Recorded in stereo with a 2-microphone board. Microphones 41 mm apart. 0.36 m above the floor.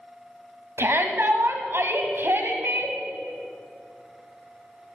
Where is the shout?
65° right (ahead or behind), 1.8 m.